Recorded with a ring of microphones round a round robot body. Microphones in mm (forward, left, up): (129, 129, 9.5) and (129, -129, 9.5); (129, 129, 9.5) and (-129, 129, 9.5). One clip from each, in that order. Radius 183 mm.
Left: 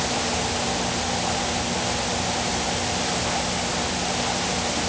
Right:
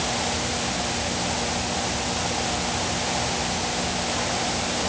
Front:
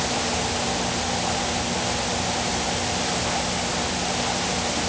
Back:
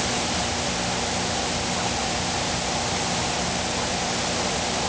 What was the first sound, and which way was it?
Only background noise.